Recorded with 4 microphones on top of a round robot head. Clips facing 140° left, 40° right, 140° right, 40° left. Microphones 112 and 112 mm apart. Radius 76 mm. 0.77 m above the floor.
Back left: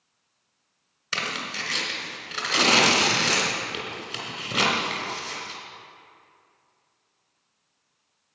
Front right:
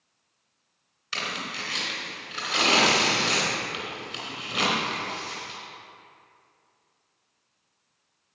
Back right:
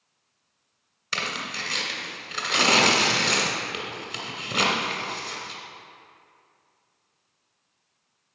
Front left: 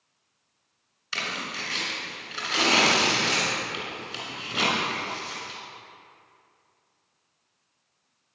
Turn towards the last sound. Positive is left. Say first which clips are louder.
# back left 2 dB, back right 2 dB
turn(degrees=-170)